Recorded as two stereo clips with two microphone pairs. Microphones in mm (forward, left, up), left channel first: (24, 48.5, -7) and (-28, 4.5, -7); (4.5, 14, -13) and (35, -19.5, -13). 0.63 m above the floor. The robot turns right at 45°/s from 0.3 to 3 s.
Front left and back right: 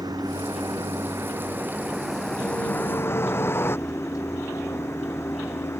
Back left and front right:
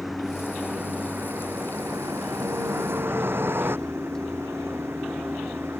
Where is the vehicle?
135° right; by 5.8 s 15° right.